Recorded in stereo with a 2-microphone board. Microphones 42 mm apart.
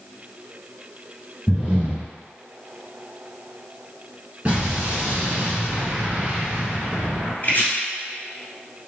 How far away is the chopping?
About 1.7 m.